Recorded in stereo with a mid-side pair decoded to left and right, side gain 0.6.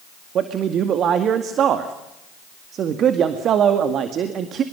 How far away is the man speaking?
About 2 m.